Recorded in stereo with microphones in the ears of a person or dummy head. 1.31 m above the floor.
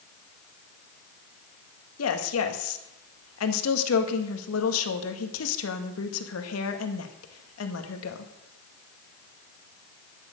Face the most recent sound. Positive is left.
turn(degrees=75)  # may be behind; listen again after turning